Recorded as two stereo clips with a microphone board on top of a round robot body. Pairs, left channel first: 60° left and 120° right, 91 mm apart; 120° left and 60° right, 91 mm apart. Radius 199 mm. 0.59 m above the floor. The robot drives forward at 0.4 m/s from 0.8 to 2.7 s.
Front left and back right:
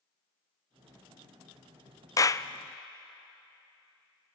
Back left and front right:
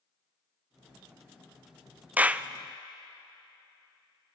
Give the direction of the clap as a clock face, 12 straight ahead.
12 o'clock.